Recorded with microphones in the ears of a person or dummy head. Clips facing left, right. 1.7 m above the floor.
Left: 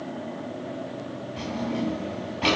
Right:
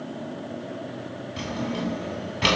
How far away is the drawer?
About 2.5 m.